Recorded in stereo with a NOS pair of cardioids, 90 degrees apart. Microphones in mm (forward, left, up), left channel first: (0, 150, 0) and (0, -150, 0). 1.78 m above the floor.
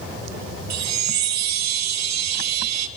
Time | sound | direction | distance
0.7 | a chime | 65° right | 1.1 m